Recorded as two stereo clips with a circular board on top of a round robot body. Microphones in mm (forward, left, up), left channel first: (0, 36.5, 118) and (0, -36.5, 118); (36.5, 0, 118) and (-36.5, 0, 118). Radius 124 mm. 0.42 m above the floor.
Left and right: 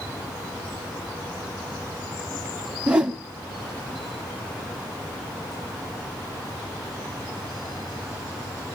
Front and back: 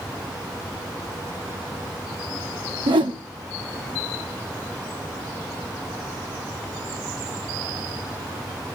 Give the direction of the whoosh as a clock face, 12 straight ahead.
6 o'clock.